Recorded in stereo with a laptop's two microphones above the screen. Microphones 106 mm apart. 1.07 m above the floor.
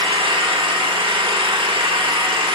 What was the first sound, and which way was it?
An engine running, 55° right (ahead or behind).